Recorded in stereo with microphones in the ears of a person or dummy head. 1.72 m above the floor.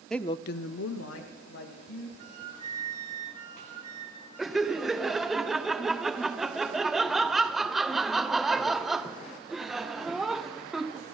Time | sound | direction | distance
0.1 | a woman speaking | centre (ahead or behind) | 0.6 m
2.2 | a flute | 45° right (ahead or behind) | 1.5 m
4.4 | laughter | 5° right (ahead or behind) | 0.7 m